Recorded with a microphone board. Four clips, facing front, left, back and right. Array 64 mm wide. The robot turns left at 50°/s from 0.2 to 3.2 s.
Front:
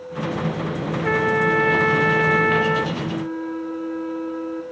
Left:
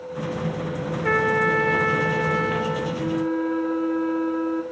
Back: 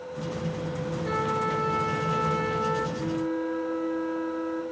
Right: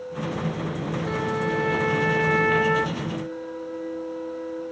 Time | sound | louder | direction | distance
1.0 | a trumpet | left 7 dB, front 9 dB | 50° left | 1.3 m
3.0 | a flute | left 7 dB, front 2 dB | 95° left | 1.9 m